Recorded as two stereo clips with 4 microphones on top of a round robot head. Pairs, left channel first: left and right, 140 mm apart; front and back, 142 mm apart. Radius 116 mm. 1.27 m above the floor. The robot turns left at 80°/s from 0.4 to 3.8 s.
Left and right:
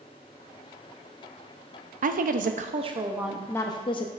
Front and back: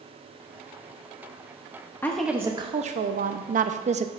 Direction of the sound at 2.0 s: 75° right.